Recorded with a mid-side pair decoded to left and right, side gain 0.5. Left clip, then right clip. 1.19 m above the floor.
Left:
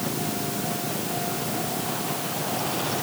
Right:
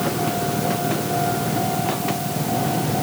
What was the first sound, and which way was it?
Only background noise.